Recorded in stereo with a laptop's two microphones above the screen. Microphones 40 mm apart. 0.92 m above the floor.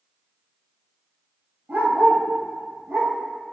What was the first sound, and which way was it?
A dog barking, 55° right (ahead or behind).